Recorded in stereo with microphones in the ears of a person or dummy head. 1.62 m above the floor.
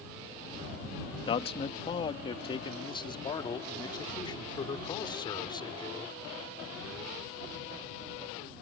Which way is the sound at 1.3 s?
30° left (ahead or behind).